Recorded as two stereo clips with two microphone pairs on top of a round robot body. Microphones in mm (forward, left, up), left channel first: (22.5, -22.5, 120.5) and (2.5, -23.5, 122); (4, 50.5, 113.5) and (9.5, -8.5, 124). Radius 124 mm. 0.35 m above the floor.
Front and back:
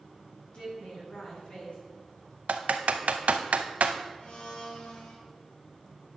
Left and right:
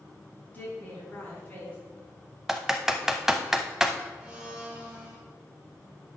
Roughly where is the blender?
Ahead.